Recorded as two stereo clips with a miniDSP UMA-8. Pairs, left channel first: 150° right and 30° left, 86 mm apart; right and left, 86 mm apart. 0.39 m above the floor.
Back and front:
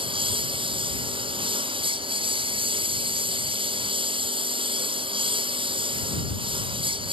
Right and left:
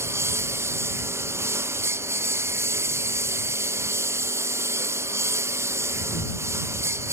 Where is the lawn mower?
30° left.